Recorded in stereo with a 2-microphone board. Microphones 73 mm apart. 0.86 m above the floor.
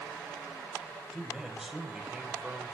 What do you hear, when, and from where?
1.1 s a man speaking: centre (ahead or behind), 4.5 m; by 2.8 s 15° right (ahead or behind), 3.5 m